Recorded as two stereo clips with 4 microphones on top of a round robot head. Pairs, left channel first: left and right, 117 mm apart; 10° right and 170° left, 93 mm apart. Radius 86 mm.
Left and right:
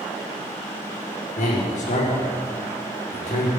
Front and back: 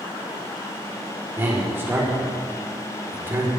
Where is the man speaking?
105° left, 4 m.